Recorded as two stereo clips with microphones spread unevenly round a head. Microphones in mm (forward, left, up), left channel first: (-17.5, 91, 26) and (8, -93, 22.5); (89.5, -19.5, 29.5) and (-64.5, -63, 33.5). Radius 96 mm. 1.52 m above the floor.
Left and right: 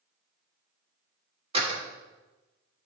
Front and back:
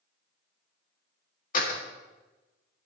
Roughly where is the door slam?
Ahead.